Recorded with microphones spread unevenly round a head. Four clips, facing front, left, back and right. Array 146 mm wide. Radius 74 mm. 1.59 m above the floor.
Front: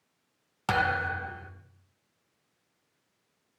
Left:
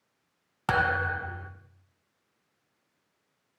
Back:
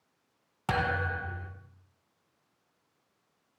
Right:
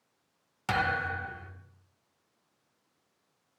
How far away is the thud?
About 1.4 m.